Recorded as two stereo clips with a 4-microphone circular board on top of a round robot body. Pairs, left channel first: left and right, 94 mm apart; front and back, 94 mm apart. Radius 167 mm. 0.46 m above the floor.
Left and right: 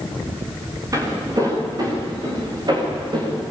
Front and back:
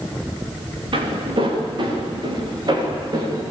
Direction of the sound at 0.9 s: 145° right.